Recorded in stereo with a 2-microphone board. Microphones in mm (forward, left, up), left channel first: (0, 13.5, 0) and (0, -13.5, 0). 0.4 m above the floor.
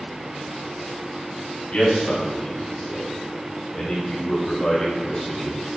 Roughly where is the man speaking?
Left.